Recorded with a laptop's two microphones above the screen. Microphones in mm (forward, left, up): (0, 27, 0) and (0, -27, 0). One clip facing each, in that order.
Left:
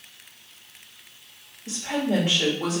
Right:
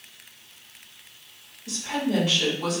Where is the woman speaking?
40° left (ahead or behind), 1.9 m.